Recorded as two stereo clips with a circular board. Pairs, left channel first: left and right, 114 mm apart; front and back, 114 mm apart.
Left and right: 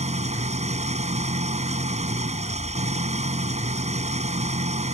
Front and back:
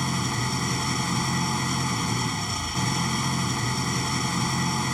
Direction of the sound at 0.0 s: 90° right.